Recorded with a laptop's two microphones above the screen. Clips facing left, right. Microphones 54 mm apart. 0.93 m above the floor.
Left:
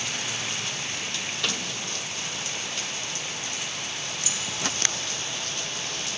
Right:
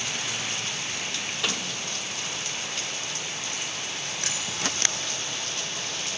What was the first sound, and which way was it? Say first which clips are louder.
A microwave: right 1 dB; 5° right (ahead or behind).